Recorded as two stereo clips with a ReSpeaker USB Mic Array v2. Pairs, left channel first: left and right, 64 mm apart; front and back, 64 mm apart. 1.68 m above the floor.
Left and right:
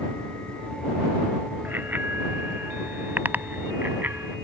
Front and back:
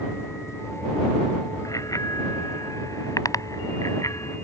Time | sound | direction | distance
1.6 | a bicycle bell | 30° right | ?